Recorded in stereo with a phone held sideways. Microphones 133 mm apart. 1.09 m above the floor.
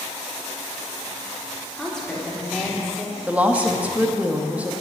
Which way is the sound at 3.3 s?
10° right (ahead or behind).